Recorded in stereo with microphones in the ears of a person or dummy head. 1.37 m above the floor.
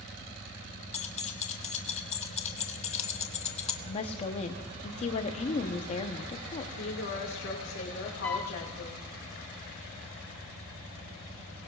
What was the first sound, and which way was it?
Keys jangling, 30° left (ahead or behind).